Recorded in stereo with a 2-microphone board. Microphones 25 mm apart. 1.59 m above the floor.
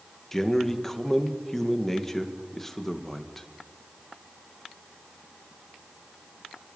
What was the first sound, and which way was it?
A man speaking, 10° left (ahead or behind).